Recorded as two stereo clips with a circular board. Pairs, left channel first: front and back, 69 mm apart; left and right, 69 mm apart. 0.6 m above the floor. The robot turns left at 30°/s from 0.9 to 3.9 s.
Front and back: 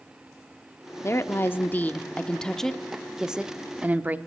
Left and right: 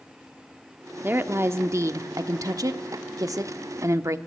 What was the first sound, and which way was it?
A woman speaking, 35° right.